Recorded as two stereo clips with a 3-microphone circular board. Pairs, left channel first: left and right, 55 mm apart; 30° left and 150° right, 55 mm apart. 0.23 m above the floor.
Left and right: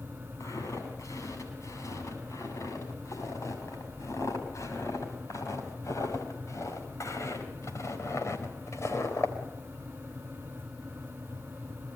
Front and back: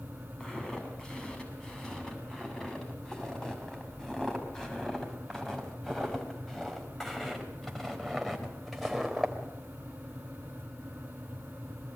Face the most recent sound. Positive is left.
turn(degrees=115)